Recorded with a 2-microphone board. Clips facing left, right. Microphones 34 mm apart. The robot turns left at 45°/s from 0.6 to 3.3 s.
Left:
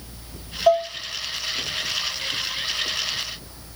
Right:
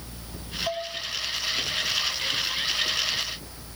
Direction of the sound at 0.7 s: 80° left.